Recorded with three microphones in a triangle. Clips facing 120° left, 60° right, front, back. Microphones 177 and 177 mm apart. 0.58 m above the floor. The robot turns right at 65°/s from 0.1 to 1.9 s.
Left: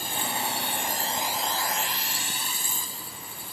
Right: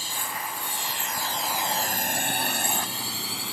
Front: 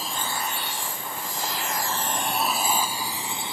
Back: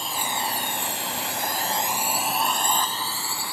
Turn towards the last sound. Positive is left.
turn(degrees=-70)